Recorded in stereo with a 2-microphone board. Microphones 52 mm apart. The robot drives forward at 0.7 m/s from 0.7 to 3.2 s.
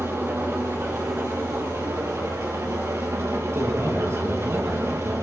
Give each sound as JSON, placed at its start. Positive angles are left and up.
{"t": 0.0, "sound": "an engine running", "side_deg": -60, "distance_m": 3.5}
{"t": 3.5, "sound": "a man speaking", "side_deg": -65, "distance_m": 6.0}